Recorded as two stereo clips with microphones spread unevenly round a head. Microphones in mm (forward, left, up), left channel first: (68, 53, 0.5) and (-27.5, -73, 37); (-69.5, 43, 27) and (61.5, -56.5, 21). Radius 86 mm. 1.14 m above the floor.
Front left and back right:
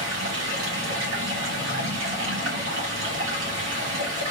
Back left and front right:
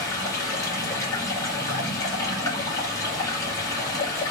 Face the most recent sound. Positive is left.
turn(degrees=-145)